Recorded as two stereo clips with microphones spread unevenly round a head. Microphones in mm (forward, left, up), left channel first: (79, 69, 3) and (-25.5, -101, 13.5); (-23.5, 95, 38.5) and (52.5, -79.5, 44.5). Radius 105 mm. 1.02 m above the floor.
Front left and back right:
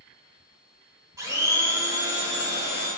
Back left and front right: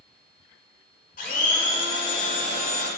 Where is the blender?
165° left, 5 m.